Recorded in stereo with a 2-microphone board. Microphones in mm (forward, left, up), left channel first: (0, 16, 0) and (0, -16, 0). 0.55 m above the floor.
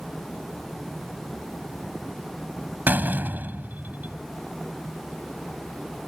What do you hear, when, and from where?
2.9 s a door slam: 75° right (ahead or behind)